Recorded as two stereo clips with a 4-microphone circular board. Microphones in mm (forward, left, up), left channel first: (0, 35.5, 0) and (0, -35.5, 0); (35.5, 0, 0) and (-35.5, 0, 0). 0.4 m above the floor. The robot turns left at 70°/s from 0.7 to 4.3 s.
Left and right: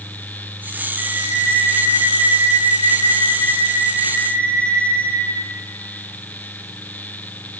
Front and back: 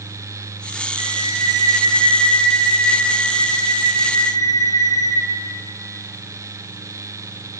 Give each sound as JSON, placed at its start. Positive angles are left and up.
{"t": 1.0, "sound": "a flute", "azimuth_deg": -160, "distance_m": 4.0}